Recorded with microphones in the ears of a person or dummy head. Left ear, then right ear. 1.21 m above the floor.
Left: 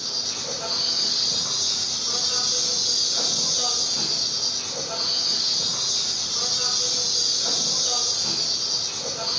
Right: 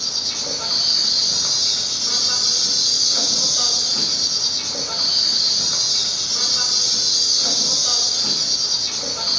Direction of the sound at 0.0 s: 70° right (ahead or behind).